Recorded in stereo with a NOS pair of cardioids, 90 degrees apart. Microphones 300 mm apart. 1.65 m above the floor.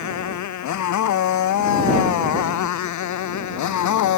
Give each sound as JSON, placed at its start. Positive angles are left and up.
{"t": 0.0, "sound": "a motorcycle", "azimuth_deg": 70}